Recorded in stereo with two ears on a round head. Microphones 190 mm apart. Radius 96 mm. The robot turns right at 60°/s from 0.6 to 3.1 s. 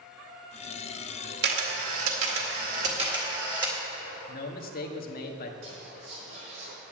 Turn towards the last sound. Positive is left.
turn(degrees=-40)  # may be behind; listen again after turning